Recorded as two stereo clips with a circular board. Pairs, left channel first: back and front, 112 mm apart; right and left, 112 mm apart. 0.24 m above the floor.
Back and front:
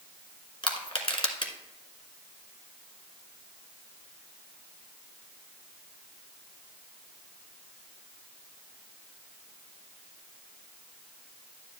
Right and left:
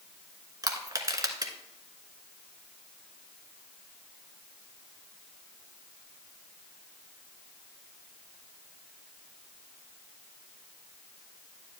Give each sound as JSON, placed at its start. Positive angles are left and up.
{"t": 0.6, "sound": "crushing", "azimuth_deg": 140, "distance_m": 1.4}